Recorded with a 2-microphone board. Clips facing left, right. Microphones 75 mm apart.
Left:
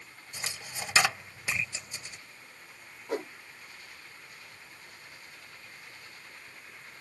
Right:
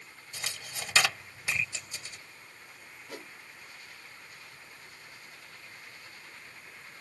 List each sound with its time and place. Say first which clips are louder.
0.3 s a dropped coin: left 1 dB; 20° left (ahead or behind)
3.1 s a whoosh: left 12 dB; 40° left (ahead or behind)